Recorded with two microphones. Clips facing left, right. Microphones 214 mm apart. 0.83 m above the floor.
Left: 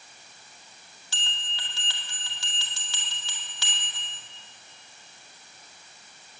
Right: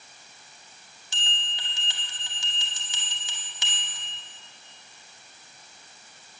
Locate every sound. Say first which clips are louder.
1.1 s a bell: right 2 dB; 20° right (ahead or behind), 2 m